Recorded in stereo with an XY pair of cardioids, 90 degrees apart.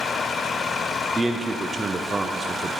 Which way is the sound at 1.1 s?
35° right.